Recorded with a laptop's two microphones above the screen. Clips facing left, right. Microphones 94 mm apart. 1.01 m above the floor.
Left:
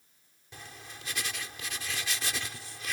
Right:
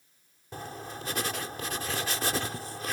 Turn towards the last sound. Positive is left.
turn(degrees=-45)  # may be behind; listen again after turning